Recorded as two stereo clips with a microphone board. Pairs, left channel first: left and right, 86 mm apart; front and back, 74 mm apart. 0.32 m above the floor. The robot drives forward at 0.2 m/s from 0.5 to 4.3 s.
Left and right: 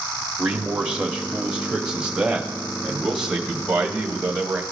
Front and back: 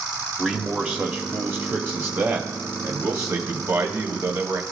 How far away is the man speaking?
About 0.9 m.